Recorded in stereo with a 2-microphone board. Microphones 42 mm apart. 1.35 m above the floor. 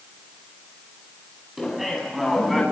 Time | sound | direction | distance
1.6 | laughter | 5° right (ahead or behind) | 10 m